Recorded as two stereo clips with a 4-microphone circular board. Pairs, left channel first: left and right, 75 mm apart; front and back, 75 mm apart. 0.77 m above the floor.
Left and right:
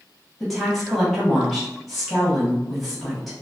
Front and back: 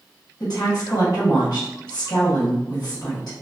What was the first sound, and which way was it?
A woman speaking, straight ahead.